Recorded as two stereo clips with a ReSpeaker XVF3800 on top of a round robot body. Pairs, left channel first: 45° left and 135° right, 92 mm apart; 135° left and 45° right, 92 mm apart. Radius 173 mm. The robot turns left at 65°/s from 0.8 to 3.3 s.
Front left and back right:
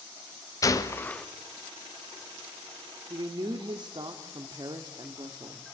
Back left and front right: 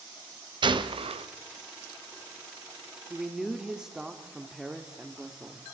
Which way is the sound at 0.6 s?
10° right.